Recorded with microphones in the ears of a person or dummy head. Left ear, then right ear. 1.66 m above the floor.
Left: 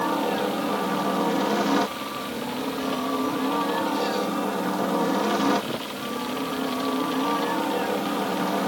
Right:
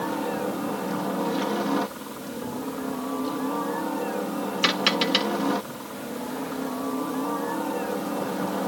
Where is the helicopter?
15° left (ahead or behind).